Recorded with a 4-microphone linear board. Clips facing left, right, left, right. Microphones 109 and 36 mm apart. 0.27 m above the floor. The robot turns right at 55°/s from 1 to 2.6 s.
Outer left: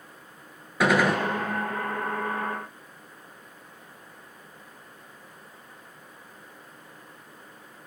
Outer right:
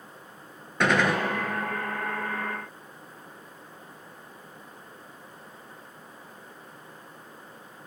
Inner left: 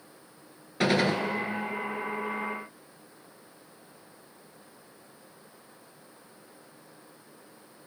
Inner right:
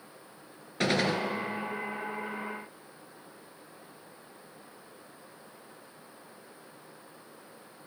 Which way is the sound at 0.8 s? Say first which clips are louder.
Outer left 2 dB, inner left 3 dB; 5° left (ahead or behind).